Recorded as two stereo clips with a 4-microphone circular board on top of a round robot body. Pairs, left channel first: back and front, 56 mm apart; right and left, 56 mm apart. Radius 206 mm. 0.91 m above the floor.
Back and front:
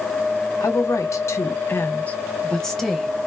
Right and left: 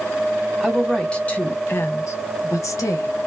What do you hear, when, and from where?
0.6 s a woman speaking: straight behind, 0.9 m; by 3.1 s 90° right, 1.1 m